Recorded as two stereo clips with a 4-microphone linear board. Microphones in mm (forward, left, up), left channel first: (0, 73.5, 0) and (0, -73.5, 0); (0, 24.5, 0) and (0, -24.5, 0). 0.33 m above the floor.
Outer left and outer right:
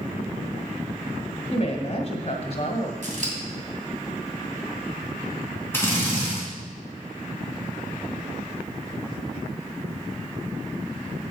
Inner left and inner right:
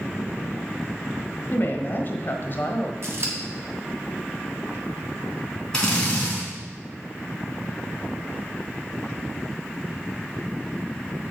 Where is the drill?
15° left (ahead or behind), 3.5 m.